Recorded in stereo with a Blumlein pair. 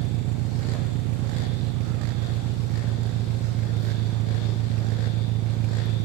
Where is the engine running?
40° right, 0.8 m.